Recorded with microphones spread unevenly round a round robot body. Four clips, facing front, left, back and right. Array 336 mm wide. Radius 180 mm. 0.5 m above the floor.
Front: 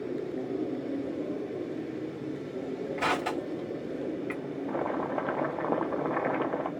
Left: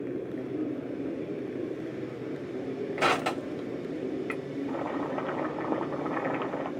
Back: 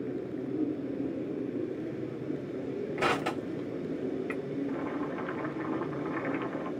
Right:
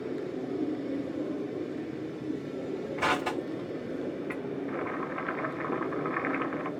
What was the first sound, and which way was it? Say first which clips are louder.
Crushing: left 2 dB, even; 135° left.